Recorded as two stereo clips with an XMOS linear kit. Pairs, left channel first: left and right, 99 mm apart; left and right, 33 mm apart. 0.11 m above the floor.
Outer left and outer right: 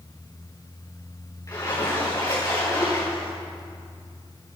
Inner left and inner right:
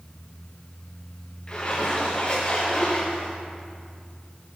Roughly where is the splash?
Left.